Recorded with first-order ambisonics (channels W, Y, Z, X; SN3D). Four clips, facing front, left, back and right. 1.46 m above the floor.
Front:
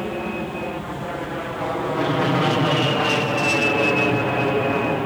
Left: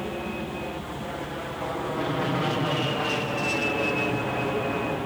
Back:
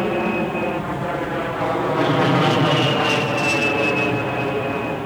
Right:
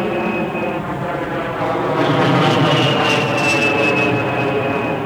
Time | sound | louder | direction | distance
0.0 | an aircraft | right 13 dB, back 6 dB | 120° right | ?